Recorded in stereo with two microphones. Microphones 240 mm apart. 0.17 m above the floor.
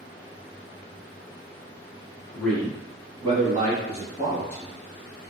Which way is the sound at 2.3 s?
5° left (ahead or behind).